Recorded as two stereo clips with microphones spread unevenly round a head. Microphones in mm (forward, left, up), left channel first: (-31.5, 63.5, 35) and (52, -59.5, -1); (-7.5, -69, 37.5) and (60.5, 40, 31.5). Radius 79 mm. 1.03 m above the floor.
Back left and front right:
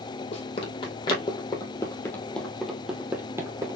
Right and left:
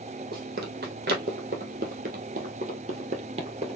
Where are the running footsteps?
85° left, 2.5 m; by 3.8 s 15° left, 1.7 m.